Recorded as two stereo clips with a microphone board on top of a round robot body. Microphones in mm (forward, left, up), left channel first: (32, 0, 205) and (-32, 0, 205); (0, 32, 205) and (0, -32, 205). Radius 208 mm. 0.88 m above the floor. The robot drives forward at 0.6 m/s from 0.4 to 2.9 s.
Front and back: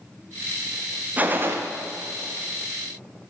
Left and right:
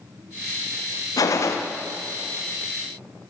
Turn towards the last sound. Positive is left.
turn(degrees=155)